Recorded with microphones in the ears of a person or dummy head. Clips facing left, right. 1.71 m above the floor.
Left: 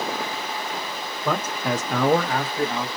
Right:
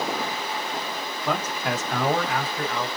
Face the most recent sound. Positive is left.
turn(degrees=25)  # may be behind; listen again after turning